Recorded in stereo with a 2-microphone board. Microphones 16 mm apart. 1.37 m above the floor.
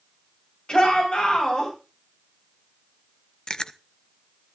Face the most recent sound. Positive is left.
turn(degrees=45)  # may be behind; listen again after turning